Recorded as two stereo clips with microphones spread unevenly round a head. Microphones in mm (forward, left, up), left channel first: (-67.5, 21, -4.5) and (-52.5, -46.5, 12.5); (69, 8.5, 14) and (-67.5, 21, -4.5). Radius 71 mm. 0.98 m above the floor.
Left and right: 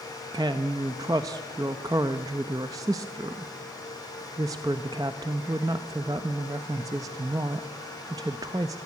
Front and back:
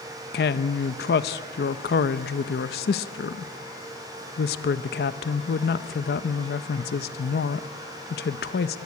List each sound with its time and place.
0.3 s a woman speaking: 15° right, 0.9 m